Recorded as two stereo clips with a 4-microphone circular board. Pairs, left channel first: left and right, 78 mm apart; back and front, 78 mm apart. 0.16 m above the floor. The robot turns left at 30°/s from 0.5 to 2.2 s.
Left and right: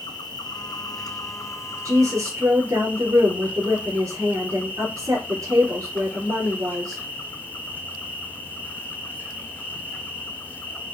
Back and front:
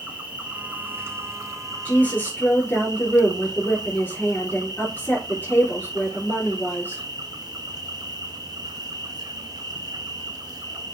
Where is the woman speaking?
115° right, 3 m; by 7.0 s 125° right, 3 m.